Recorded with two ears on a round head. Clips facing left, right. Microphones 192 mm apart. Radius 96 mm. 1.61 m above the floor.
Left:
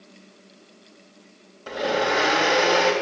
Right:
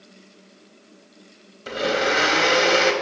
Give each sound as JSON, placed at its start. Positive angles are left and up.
{"t": 1.7, "sound": "a blender", "side_deg": -30, "distance_m": 3.5}